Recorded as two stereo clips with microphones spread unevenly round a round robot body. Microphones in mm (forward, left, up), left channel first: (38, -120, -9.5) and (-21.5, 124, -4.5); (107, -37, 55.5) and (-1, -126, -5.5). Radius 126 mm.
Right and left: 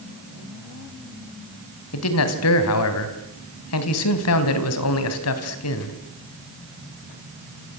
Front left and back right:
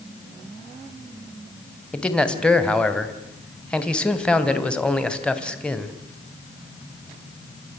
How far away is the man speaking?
About 3.5 m.